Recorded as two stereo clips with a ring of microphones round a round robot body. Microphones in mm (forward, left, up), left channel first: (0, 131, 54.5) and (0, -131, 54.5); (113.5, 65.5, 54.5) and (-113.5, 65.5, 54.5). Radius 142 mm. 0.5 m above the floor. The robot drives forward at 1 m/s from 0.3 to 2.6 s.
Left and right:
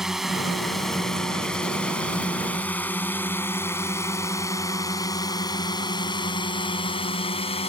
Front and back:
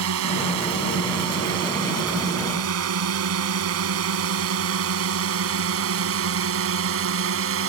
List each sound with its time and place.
0.0 s a drone: straight behind; by 7.7 s 160° left